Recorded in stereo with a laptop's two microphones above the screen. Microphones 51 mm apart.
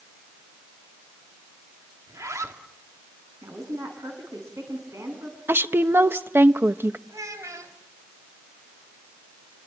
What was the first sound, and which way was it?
A zipper, 75° right (ahead or behind).